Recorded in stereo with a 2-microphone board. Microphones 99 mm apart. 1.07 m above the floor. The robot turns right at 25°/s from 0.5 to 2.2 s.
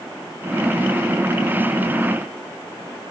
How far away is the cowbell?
I don't hear a cowbell.